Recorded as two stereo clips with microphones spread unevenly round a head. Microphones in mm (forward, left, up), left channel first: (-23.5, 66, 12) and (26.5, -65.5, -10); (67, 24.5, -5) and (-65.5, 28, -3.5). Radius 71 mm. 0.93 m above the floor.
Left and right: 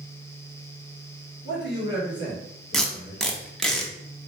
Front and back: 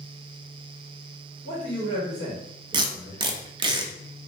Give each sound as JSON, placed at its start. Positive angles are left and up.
{"t": 1.4, "sound": "a man speaking", "azimuth_deg": 120, "distance_m": 1.8}
{"t": 2.7, "sound": "tape being pulled", "azimuth_deg": 180, "distance_m": 0.5}